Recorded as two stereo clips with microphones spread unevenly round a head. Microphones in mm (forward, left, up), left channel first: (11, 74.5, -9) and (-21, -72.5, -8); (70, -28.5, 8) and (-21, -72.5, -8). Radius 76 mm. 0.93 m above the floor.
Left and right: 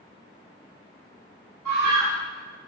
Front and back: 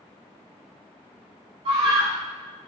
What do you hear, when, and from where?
1.6 s a scream: 130° right, 2 m